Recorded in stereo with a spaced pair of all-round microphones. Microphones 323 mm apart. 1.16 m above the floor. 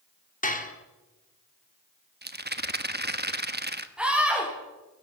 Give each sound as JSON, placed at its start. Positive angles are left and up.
{"t": 0.4, "sound": "dishes clattering", "side_deg": 25, "distance_m": 1.9}
{"t": 2.2, "sound": "a rattle", "side_deg": -30, "distance_m": 1.1}
{"t": 4.0, "sound": "a scream", "side_deg": -5, "distance_m": 4.5}